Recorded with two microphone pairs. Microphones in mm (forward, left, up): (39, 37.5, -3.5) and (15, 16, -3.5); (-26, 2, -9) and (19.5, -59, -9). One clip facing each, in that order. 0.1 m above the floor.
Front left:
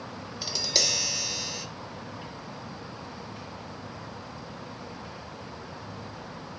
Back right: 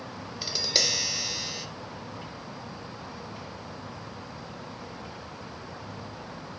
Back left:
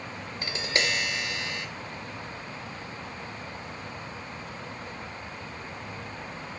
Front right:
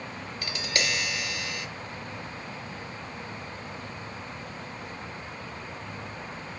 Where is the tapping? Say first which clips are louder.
Back right 1 dB, back left 2 dB; 155° left, 1.1 m.